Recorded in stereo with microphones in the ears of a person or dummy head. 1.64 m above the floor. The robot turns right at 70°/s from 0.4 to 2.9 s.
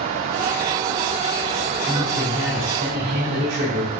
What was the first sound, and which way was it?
A man speaking, 165° left.